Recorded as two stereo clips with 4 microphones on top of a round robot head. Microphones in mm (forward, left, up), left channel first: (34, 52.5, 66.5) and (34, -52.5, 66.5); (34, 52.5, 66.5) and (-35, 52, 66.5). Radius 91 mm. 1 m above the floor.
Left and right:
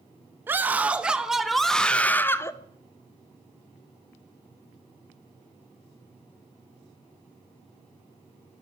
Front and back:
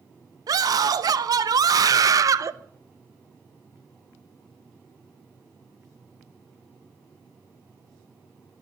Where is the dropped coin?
I don't hear a dropped coin.